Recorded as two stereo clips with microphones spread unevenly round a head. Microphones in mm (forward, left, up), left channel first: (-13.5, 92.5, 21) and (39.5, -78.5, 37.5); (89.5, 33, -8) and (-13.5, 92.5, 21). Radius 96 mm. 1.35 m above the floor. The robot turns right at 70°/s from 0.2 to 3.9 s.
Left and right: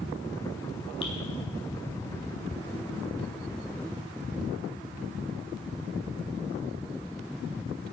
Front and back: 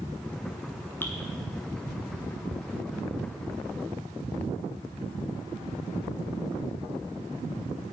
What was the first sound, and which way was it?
Dripping, 45° left.